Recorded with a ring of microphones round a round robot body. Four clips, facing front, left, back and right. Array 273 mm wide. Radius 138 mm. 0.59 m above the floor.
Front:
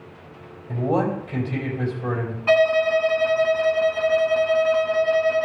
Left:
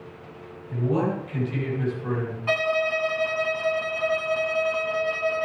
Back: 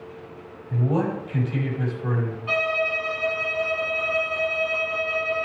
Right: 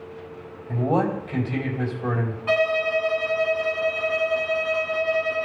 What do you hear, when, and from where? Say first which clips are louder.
0.7 s a man speaking: right 2 dB, front 2 dB; 50° right, 3.5 m
2.5 s a violin: right 3 dB, front 9 dB; 5° left, 1.1 m